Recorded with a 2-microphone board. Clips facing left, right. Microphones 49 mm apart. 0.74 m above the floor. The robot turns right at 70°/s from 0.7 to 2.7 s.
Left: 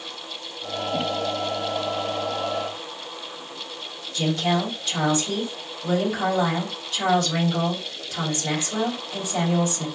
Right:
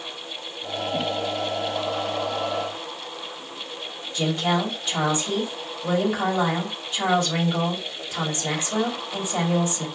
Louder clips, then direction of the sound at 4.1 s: Even; 20° right (ahead or behind).